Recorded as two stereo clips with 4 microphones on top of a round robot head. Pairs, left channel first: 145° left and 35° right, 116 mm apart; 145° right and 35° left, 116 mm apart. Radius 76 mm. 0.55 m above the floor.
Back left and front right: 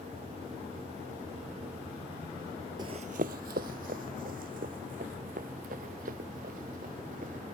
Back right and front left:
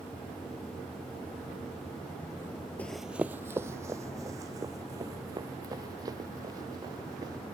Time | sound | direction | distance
2.8 | running footsteps | 75° right | ?